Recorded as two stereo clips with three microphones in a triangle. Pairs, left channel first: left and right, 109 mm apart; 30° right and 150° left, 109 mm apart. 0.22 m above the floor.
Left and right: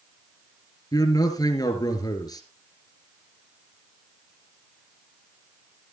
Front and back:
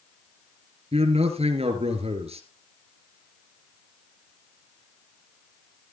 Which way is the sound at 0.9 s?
140° left.